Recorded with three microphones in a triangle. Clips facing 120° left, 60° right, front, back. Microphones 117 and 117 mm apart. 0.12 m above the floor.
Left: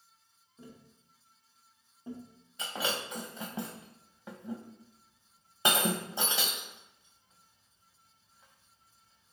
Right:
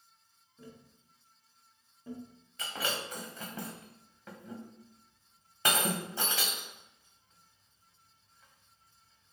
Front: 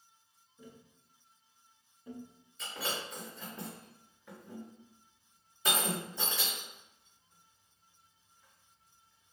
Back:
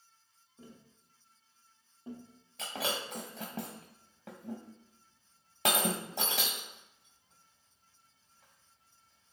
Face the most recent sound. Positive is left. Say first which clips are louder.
# left 2 dB, back 3 dB
turn(degrees=-170)